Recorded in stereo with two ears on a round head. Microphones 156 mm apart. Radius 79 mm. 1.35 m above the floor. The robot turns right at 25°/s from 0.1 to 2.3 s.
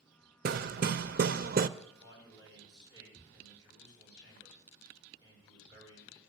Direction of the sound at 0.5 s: 100° right.